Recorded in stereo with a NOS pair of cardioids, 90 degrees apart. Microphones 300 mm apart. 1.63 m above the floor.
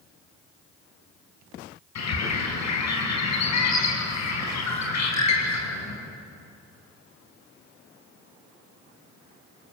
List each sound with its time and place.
1.9 s a bird: 65° left, 5.5 m